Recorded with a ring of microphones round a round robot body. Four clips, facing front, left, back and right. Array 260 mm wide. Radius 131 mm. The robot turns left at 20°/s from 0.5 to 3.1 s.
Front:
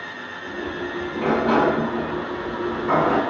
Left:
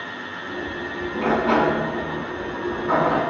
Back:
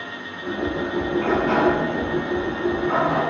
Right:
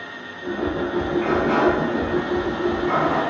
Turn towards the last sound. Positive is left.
turn(degrees=15)